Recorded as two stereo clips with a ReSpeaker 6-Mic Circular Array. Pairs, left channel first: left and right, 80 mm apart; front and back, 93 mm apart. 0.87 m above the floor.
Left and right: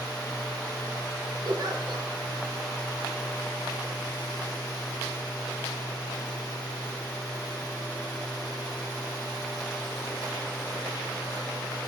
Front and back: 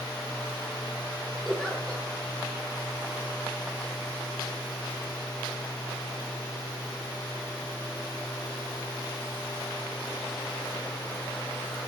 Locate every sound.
1.4 s a giggle: 85° right, 0.8 m